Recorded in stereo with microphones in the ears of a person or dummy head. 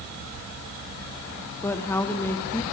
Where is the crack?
No crack in this recording.